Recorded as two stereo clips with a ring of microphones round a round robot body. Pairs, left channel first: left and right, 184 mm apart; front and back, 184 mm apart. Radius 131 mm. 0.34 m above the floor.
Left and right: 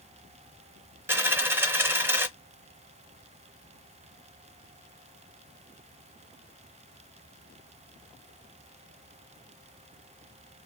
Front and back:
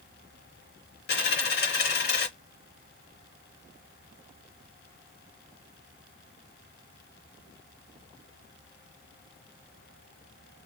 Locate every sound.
1.1 s a dropped coin: 15° right, 0.7 m